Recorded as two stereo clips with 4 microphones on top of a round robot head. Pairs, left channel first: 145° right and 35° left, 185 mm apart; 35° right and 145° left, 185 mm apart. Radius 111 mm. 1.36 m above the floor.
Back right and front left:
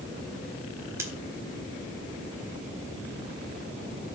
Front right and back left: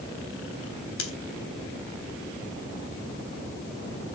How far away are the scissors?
About 4 m.